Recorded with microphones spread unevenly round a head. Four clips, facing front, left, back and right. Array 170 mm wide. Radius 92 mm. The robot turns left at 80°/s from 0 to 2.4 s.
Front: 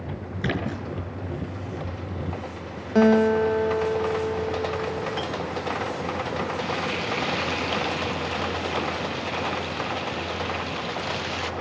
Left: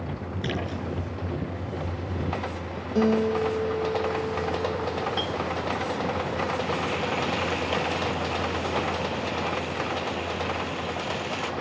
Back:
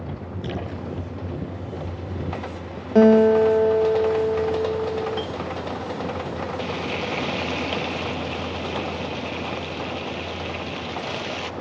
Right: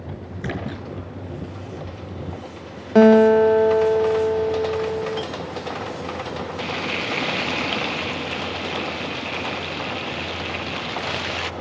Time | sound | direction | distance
0.4 | a splash | 5° right | 7 m
3.0 | a guitar | 120° right | 0.5 m
5.2 | a clink | 30° left | 1.4 m
6.6 | frying | 130° right | 0.6 m